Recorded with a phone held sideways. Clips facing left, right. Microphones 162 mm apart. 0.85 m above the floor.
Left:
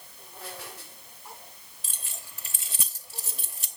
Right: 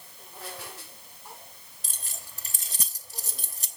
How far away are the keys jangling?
About 1.2 m.